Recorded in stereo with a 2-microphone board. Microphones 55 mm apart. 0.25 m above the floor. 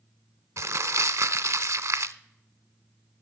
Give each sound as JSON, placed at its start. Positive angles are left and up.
{"t": 0.6, "sound": "crumpling", "side_deg": -65, "distance_m": 0.6}